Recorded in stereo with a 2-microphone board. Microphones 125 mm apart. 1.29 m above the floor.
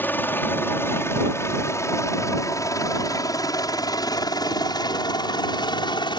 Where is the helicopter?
15° left (ahead or behind); by 6.2 s 40° left (ahead or behind).